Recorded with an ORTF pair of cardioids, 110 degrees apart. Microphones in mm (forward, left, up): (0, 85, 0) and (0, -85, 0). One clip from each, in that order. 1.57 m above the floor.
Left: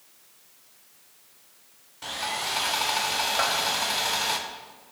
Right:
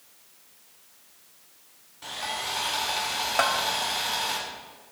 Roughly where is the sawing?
Ahead left.